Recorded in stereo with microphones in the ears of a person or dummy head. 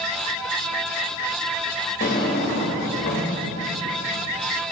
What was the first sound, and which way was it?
A drawer, 40° left (ahead or behind).